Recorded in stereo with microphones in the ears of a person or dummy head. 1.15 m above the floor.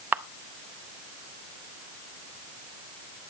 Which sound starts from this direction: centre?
A camera shutter, at 0.1 s.